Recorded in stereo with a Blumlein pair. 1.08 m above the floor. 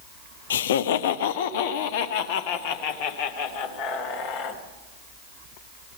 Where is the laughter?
65° left, 0.6 m; by 4.6 s 45° left, 3.5 m.